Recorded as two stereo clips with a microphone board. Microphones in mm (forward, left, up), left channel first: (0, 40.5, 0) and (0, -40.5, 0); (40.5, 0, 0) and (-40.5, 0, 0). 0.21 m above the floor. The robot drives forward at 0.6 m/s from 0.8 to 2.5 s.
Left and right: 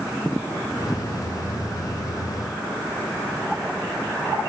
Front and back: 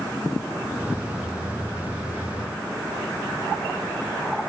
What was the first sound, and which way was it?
Only background noise.